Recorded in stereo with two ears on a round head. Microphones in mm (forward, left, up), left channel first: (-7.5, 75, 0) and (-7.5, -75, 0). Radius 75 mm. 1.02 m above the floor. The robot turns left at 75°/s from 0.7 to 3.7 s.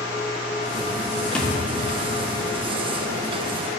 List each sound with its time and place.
1.4 s a thud: 5° left (ahead or behind), 0.6 m; by 1.6 s 5° right (ahead or behind), 0.6 m